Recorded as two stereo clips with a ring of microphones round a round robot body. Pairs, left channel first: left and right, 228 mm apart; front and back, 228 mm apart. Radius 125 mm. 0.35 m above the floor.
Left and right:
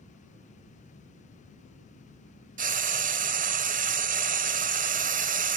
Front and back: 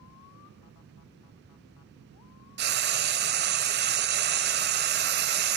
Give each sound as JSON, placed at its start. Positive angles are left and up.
{"t": 2.6, "sound": "frying", "azimuth_deg": -140, "distance_m": 1.1}